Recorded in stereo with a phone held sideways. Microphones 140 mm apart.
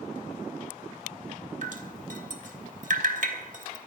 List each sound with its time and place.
1.6 s dripping: 60° right (ahead or behind), 1.5 m